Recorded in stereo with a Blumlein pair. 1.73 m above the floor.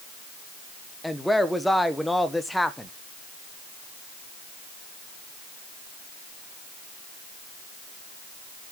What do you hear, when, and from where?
1.0 s a woman speaking: straight ahead, 1.3 m